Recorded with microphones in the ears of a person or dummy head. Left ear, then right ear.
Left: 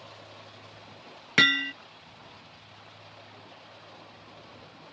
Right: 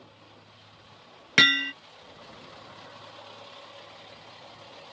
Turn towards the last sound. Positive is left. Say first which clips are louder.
# right 2 dB
turn(degrees=-10)  # may be behind; listen again after turning